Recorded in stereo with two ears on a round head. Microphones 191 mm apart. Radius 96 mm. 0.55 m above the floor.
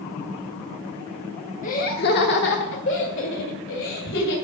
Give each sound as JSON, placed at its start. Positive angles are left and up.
{"t": 1.6, "sound": "laughter", "side_deg": 35, "distance_m": 1.0}